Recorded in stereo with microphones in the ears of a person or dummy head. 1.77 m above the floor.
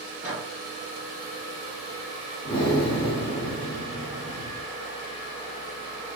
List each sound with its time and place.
0.2 s a microwave: 10° right (ahead or behind), 1.8 m
2.5 s breathing: 25° left (ahead or behind), 0.6 m